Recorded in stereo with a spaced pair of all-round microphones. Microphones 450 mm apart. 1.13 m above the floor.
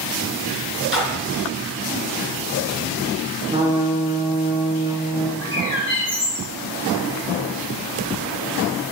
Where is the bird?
40° left (ahead or behind), 2.5 m.